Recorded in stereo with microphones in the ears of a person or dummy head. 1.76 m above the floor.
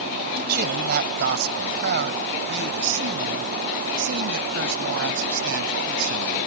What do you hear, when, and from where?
0.4 s a man speaking: 60° right (ahead or behind); by 6.4 s 80° right